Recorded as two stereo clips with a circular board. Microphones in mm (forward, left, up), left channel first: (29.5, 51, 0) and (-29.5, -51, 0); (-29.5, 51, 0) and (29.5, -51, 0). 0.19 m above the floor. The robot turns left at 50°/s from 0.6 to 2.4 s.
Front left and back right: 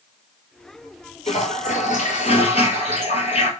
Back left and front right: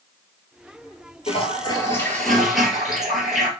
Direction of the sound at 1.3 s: 85° left.